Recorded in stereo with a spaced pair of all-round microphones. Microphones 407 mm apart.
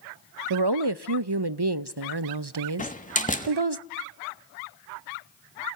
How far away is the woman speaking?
About 0.6 m.